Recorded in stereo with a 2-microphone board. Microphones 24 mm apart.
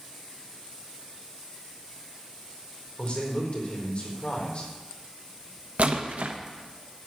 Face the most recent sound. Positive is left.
turn(degrees=-80)